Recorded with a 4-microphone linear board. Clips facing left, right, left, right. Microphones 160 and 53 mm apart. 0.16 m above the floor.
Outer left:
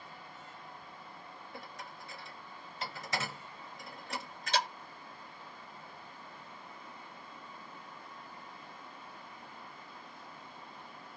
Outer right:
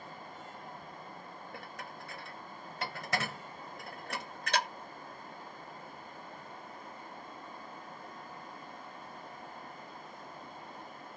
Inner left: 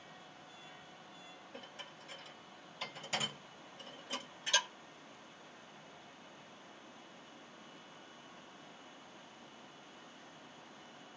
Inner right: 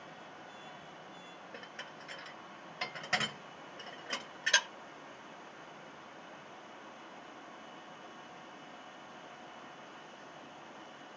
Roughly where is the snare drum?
I don't hear a snare drum.